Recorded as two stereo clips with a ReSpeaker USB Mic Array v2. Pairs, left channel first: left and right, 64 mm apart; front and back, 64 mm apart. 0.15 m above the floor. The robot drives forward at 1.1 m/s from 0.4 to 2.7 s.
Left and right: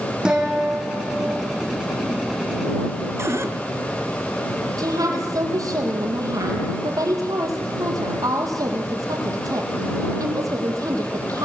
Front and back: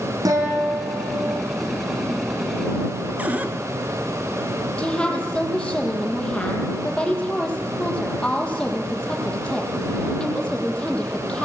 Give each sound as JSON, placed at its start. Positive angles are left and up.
{"t": 0.2, "sound": "a guitar", "azimuth_deg": -170, "distance_m": 6.5}
{"t": 3.2, "sound": "a cupboard door", "azimuth_deg": -120, "distance_m": 1.9}
{"t": 4.8, "sound": "a woman speaking", "azimuth_deg": -75, "distance_m": 5.0}